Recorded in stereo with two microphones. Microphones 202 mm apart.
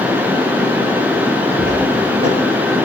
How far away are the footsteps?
About 8.5 m.